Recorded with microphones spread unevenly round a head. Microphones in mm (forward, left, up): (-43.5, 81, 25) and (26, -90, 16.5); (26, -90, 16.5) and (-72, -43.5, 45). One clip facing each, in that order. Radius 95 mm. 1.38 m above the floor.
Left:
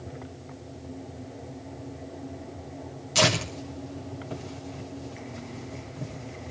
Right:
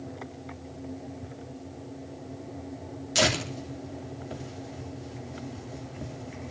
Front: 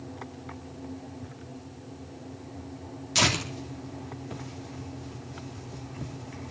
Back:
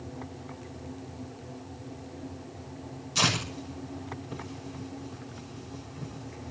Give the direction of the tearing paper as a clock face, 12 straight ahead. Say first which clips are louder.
Left 1 dB, front 2 dB; 12 o'clock.